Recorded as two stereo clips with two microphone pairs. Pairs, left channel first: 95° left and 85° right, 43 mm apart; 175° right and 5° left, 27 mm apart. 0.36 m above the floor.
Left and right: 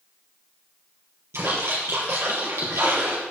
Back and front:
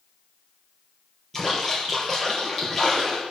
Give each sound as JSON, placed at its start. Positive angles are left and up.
{"t": 1.3, "sound": "a splash", "azimuth_deg": -100, "distance_m": 4.0}